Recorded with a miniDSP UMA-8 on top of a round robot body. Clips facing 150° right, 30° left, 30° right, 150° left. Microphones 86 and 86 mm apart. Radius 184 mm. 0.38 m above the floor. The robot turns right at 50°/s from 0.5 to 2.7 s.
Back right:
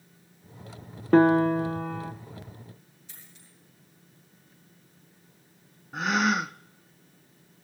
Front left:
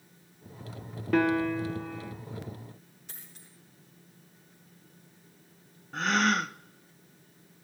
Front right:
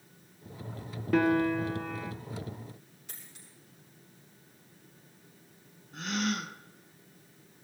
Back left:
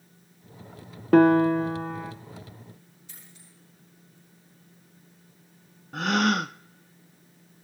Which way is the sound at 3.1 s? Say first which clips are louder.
Front left 2 dB, front right 1 dB; straight ahead.